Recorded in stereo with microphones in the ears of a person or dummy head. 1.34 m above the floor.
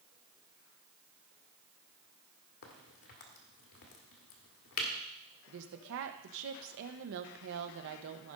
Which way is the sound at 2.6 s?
55° left (ahead or behind).